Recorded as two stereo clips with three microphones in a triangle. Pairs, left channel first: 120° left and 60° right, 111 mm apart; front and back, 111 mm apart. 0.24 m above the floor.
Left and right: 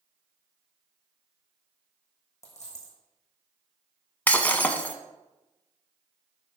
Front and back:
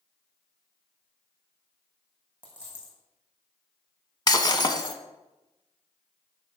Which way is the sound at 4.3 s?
45° left.